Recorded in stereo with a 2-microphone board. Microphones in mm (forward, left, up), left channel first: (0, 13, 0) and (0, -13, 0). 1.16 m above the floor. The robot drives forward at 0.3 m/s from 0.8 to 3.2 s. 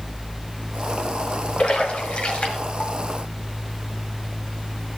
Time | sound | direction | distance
1.6 | a splash | 45° left (ahead or behind) | 1.3 m